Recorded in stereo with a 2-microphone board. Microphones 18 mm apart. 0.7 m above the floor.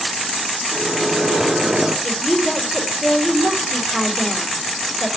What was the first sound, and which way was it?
A microwave, 30° right (ahead or behind).